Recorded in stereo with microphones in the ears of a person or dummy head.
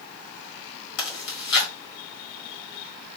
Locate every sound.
1.0 s chewing: 65° left (ahead or behind), 1.7 m